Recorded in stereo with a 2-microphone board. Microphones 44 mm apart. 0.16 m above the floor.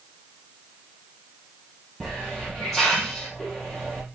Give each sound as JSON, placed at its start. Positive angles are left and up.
{"t": 2.0, "sound": "a hiss", "side_deg": 5, "distance_m": 4.5}